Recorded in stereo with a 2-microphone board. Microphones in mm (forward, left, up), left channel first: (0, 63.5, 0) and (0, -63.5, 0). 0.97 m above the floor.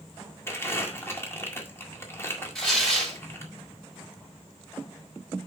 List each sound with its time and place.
0.5 s crumpling: 20° left (ahead or behind), 1.8 m
2.5 s tearing paper: 5° left (ahead or behind), 3 m